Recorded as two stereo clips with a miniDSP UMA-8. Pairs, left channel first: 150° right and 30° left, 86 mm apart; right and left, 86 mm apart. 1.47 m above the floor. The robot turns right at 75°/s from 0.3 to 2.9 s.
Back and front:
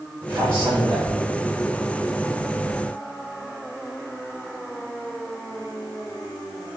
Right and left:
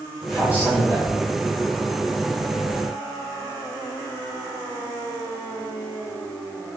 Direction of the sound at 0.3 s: Straight ahead.